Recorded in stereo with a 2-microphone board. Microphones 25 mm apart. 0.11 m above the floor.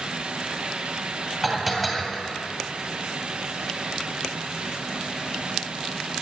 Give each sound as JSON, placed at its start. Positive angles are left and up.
{"t": 1.4, "sound": "dishes clattering", "side_deg": -5, "distance_m": 2.0}